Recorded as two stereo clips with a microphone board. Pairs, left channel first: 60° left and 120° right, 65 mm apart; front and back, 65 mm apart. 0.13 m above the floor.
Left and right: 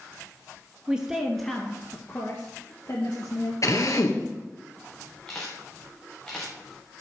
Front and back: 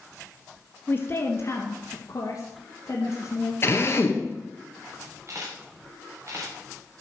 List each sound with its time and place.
0.9 s a woman speaking: 50° right, 1.8 m; by 3.5 s 40° left, 3.5 m
3.6 s a drill: 45° left, 2 m
5.3 s a camera shutter: 135° left, 5 m